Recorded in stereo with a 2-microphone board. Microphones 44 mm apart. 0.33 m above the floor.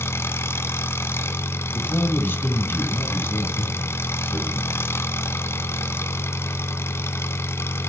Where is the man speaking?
55° left (ahead or behind), 2.5 m.